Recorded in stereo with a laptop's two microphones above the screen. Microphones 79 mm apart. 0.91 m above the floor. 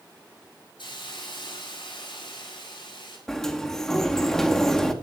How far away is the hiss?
About 7 m.